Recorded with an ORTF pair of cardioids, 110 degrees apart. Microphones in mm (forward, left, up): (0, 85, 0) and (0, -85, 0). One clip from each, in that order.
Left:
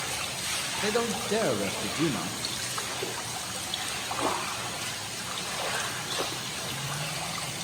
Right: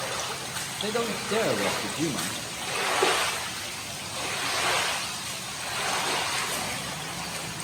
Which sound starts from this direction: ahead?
A man speaking, at 0.8 s.